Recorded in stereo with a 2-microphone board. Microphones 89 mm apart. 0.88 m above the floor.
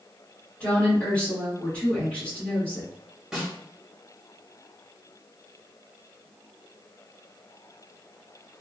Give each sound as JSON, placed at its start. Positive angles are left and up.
{"t": 0.6, "sound": "a woman speaking", "side_deg": 15, "distance_m": 1.6}
{"t": 3.3, "sound": "a snare drum", "side_deg": -5, "distance_m": 1.8}